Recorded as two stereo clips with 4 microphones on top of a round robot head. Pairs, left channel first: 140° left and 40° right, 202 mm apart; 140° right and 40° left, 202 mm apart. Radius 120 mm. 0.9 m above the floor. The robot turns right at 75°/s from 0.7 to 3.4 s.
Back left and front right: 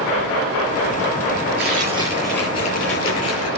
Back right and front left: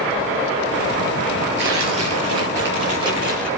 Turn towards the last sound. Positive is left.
turn(degrees=135)